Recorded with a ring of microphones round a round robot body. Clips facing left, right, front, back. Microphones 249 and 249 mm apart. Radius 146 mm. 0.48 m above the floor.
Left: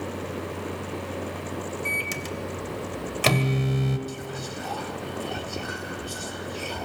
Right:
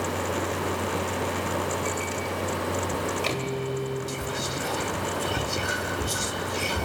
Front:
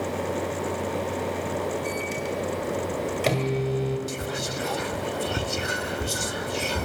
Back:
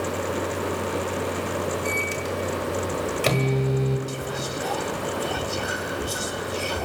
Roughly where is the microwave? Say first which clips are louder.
Right 3 dB, back 1 dB; left.